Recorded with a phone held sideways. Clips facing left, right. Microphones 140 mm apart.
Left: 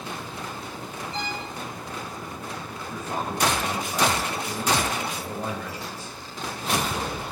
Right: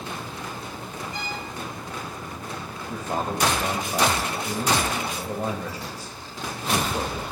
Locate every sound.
1.1 s a violin: 30° left (ahead or behind), 1.7 m
2.9 s a man speaking: 40° right (ahead or behind), 1.0 m